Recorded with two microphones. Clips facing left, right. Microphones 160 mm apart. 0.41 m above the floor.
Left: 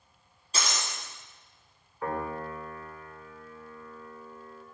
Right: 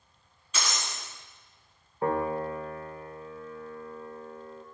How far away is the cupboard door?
No cupboard door in this recording.